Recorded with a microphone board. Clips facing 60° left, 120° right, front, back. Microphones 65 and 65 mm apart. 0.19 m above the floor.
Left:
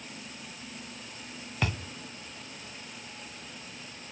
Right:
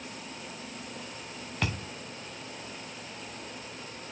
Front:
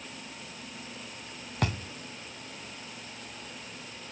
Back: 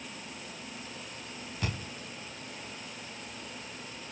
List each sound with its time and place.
1.6 s a thud: 25° right, 2.5 m